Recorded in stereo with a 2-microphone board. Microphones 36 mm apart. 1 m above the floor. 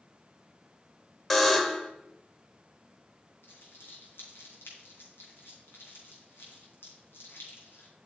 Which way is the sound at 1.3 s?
5° left (ahead or behind).